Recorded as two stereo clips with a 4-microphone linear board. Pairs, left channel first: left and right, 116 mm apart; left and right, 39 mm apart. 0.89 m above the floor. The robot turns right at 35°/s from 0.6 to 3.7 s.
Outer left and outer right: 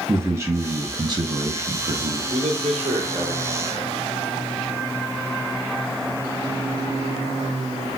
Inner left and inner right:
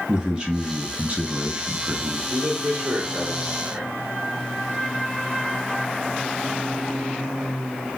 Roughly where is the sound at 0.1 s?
Behind right.